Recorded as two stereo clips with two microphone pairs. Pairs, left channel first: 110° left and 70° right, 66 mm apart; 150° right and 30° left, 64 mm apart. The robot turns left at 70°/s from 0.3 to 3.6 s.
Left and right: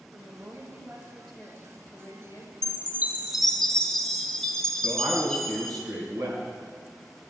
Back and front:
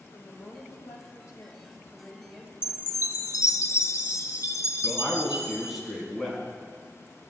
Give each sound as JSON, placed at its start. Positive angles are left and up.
{"t": 0.1, "sound": "a woman speaking", "azimuth_deg": -110, "distance_m": 2.0}
{"t": 2.6, "sound": "a chime", "azimuth_deg": -105, "distance_m": 0.7}
{"t": 4.8, "sound": "a man speaking", "azimuth_deg": -60, "distance_m": 3.0}